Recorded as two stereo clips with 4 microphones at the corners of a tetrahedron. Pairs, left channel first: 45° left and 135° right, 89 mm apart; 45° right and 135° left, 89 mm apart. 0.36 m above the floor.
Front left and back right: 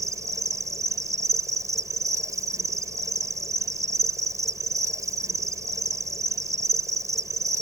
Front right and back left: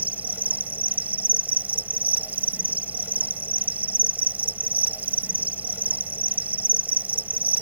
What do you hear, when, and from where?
0.0 s an insect: 165° right